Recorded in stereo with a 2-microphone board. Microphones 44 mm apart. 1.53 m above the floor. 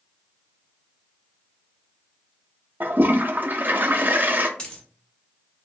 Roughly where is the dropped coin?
Centre.